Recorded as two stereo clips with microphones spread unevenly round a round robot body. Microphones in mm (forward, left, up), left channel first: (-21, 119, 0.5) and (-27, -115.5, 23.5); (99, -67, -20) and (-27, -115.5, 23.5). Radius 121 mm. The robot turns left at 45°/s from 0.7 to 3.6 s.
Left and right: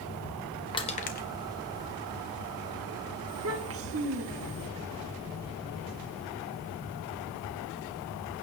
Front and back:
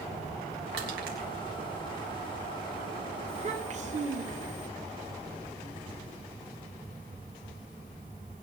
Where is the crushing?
160° left, 1.6 m; by 1.3 s 135° left, 1.6 m.